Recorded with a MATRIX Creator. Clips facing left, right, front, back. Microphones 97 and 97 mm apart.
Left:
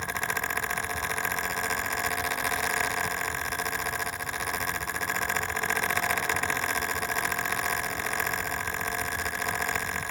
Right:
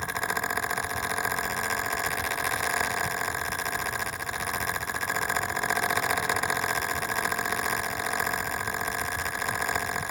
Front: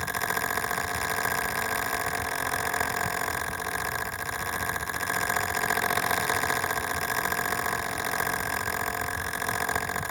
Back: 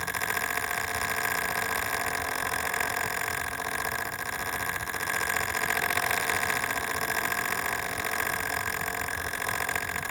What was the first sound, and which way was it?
Only background noise.